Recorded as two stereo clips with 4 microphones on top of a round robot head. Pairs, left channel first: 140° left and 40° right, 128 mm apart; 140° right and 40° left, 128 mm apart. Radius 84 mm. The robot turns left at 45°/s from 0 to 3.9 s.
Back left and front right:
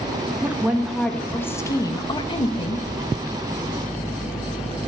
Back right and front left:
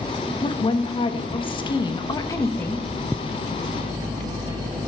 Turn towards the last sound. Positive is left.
turn(degrees=95)